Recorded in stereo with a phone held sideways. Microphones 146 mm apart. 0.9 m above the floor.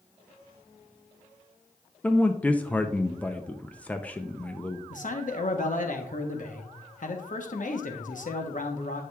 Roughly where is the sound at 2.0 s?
Centre.